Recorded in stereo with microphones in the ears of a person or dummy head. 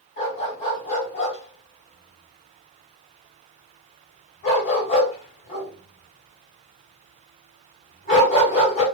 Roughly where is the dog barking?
Left.